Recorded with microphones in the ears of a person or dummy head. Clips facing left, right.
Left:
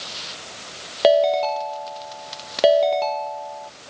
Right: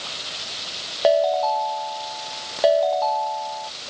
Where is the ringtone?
35° left (ahead or behind).